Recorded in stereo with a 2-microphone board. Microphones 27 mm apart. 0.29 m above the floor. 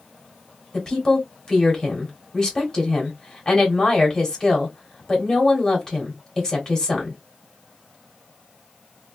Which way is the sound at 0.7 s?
20° left (ahead or behind).